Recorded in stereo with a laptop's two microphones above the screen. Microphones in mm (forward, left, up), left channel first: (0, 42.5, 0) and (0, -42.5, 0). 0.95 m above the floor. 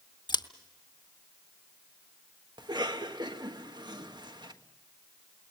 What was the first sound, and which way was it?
Scissors, 65° left (ahead or behind).